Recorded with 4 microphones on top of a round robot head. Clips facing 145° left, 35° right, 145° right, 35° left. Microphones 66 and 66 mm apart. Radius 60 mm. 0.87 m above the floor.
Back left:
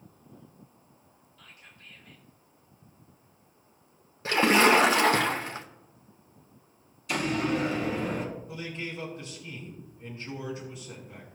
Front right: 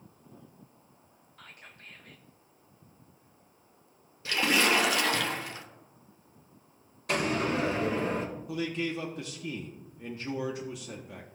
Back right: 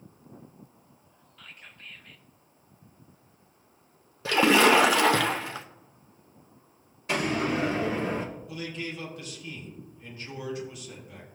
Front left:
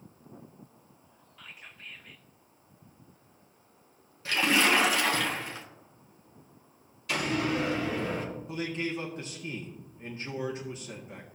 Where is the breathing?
I don't hear breathing.